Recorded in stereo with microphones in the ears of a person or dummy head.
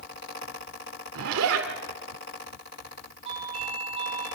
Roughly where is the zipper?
Right.